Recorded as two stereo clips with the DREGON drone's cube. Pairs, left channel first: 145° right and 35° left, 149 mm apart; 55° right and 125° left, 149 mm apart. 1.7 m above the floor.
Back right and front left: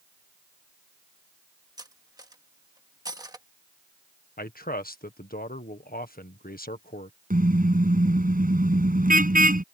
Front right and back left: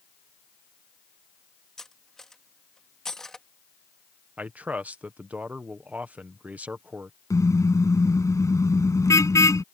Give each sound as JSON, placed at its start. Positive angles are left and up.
{"t": 1.8, "sound": "cutlery clinking", "azimuth_deg": 25}
{"t": 4.4, "sound": "a man speaking", "azimuth_deg": -155}
{"t": 7.3, "sound": "a car horn", "azimuth_deg": 15}